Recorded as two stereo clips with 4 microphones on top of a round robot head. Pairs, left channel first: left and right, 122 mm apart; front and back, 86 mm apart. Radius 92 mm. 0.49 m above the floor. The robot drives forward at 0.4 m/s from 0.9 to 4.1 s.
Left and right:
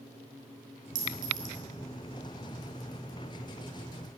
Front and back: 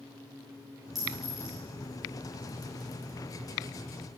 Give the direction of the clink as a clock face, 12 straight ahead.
3 o'clock.